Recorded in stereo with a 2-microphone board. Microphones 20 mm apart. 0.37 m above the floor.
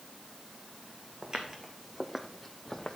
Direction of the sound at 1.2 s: 40° right (ahead or behind).